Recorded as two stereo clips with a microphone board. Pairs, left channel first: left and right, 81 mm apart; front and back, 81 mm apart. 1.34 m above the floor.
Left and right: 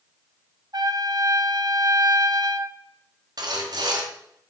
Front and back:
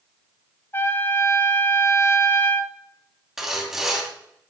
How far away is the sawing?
About 2 m.